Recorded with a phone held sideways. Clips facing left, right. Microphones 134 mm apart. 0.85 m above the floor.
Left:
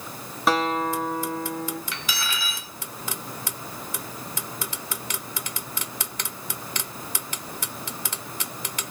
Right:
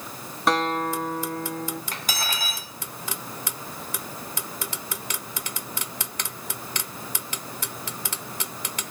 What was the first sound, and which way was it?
A guitar, centre (ahead or behind).